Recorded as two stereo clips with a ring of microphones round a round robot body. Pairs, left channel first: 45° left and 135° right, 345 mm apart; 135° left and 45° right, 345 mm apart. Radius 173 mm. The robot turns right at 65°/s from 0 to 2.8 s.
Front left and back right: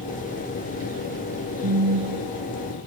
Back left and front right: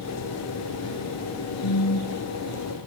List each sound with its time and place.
1.6 s a phone buzzing: 170° left; by 2.3 s 150° right